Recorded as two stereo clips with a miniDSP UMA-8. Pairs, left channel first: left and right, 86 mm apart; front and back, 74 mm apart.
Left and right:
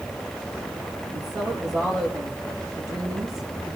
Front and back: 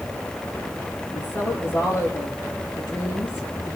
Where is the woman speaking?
50° right, 6 m.